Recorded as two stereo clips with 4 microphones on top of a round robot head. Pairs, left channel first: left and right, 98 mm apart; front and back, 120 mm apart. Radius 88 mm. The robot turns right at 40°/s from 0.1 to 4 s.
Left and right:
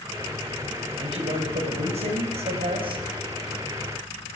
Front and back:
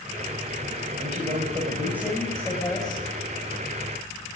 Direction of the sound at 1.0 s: 140° right.